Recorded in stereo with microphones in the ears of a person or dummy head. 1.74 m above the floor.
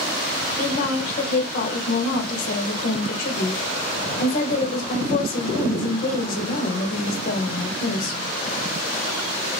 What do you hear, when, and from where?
0.6 s a woman speaking: 45° left (ahead or behind), 0.9 m